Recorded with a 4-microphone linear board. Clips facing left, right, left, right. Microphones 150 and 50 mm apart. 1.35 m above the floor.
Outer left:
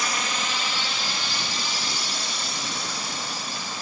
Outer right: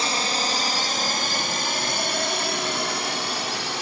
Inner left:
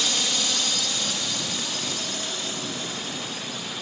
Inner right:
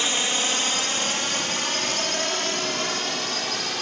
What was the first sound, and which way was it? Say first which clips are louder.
A drone: outer right 3 dB, inner right 2 dB; 30° right (ahead or behind).